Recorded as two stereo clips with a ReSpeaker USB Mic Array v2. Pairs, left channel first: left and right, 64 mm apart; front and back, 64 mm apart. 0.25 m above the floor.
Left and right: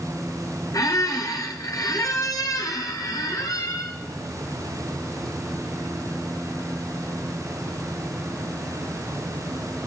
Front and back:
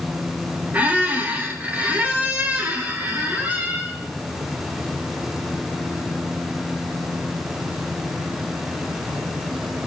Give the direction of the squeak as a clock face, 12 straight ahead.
8 o'clock.